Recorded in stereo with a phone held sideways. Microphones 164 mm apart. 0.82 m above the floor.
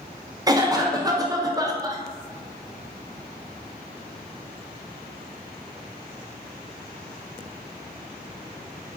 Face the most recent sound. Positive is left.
turn(degrees=-25)  # may be behind; listen again after turning